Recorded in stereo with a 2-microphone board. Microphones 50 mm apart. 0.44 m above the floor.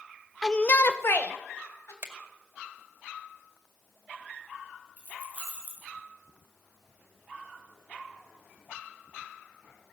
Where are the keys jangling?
35° left (ahead or behind), 6 m.